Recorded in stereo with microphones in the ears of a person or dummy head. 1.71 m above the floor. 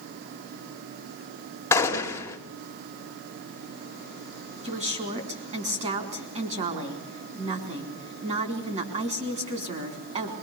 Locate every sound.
1.7 s a gunshot: 10° left (ahead or behind), 2.5 m
4.6 s a woman speaking: 45° right (ahead or behind), 4.5 m